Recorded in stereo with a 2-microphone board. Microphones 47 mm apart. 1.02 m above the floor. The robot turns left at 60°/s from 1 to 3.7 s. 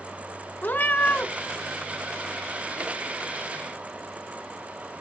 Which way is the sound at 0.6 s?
45° left (ahead or behind).